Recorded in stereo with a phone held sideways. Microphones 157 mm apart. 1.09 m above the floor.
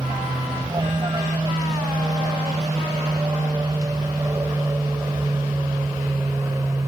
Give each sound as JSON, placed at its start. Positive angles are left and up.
{"t": 0.0, "sound": "an aircraft", "side_deg": -25}